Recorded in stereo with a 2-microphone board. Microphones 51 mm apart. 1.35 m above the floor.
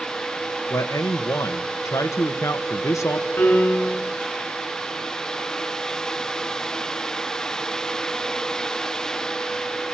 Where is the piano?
40° left (ahead or behind), 8 m.